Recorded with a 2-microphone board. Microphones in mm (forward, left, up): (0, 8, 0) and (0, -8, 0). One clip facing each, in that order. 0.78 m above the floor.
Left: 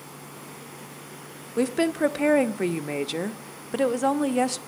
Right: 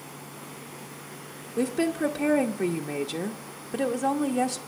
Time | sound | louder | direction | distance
1.6 | a woman speaking | left 3 dB | 20° left (ahead or behind) | 0.6 m